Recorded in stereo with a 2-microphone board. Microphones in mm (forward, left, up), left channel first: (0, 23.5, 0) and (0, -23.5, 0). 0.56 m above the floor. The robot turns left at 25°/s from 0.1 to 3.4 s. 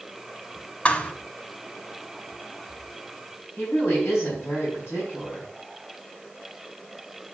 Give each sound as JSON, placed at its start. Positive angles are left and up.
{"t": 0.8, "sound": "a thud", "side_deg": 30, "distance_m": 0.8}
{"t": 3.6, "sound": "a woman speaking", "side_deg": 70, "distance_m": 4.5}